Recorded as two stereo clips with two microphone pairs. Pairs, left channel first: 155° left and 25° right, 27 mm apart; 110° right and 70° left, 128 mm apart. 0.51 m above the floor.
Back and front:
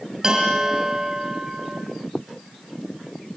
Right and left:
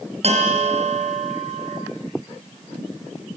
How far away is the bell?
About 5 m.